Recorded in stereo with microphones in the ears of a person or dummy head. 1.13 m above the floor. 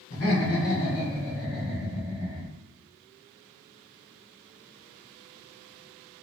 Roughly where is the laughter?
Left.